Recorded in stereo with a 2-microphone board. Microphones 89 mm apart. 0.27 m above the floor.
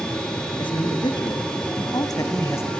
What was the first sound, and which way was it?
A man speaking, 60° left (ahead or behind).